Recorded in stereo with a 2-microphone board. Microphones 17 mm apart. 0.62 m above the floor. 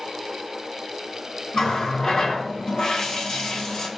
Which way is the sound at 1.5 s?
40° left (ahead or behind).